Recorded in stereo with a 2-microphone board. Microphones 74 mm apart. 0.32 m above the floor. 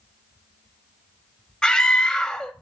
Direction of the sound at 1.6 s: 10° left (ahead or behind).